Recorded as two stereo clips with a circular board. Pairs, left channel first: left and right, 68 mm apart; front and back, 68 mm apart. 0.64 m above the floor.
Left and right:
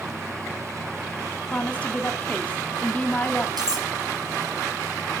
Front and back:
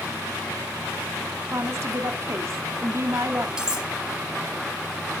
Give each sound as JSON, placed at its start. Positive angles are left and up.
{"t": 1.5, "sound": "a woman speaking", "azimuth_deg": 150, "distance_m": 1.4}
{"t": 3.6, "sound": "cutlery clinking", "azimuth_deg": -100, "distance_m": 3.5}